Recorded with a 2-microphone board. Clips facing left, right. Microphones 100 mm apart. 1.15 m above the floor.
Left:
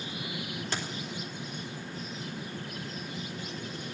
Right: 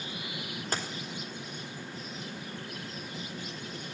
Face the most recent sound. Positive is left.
turn(degrees=-40)  # may be behind; listen again after turning